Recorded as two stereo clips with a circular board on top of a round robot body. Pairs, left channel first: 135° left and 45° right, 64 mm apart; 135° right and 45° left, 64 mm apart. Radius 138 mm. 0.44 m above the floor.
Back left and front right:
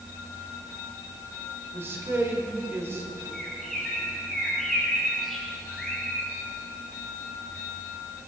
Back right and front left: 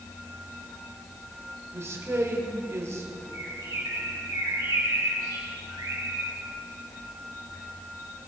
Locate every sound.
1.7 s a man speaking: 5° left, 2.5 m
3.3 s a bird: 50° left, 4.5 m